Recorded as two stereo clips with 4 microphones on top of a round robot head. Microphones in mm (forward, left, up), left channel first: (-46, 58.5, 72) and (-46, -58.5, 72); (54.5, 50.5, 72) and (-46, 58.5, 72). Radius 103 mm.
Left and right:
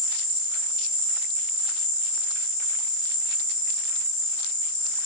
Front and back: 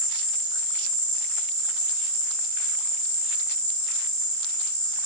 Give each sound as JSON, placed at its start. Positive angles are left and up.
{"t": 0.0, "sound": "an insect", "azimuth_deg": -5, "distance_m": 1.7}